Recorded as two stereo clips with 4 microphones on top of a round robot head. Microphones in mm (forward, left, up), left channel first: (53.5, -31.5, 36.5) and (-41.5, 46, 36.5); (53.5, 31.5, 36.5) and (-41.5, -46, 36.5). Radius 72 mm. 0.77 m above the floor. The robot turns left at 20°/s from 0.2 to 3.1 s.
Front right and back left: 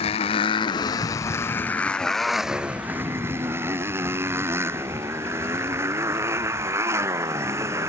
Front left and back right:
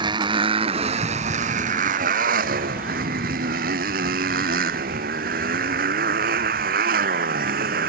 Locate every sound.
0.0 s a motorcycle: 85° right; by 7.9 s 150° right